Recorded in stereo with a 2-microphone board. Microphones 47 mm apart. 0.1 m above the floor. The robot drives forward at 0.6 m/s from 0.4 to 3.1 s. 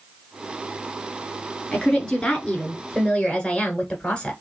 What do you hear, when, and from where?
1.7 s a woman speaking: 20° left (ahead or behind), 1.4 m